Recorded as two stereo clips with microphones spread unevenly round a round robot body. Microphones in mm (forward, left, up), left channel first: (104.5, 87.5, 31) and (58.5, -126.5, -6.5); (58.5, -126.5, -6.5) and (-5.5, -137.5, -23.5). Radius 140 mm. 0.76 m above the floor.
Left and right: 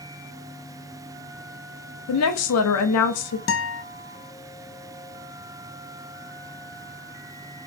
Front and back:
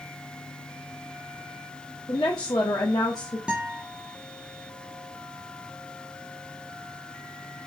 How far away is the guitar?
About 0.6 m.